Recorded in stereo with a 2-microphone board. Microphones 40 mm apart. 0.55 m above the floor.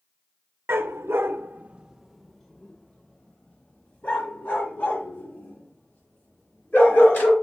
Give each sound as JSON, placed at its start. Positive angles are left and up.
{"t": 0.7, "sound": "a dog barking", "side_deg": -80, "distance_m": 0.7}